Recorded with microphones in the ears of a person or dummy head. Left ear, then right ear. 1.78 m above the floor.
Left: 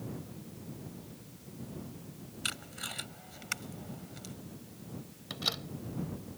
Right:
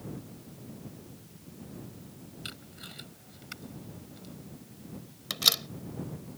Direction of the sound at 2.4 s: 30° left (ahead or behind).